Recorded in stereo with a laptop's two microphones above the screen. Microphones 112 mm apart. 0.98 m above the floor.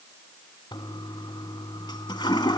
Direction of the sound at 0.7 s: 40° left (ahead or behind).